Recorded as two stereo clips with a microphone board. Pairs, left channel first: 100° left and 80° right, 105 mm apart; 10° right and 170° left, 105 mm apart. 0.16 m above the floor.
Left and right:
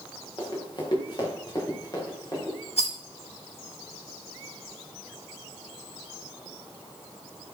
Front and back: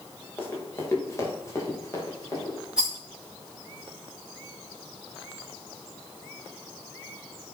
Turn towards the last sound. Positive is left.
turn(degrees=85)